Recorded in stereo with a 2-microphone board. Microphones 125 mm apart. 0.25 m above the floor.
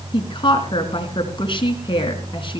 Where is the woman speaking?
40° left (ahead or behind), 3 m.